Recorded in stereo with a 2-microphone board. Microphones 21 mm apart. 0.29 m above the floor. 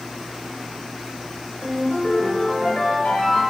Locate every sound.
1.6 s a ringtone: 65° left (ahead or behind), 3 m